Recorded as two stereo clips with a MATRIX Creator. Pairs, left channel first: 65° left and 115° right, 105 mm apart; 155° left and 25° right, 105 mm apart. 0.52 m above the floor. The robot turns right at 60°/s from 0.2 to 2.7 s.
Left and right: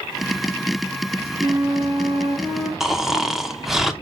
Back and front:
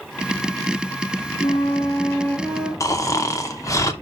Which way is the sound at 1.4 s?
175° left.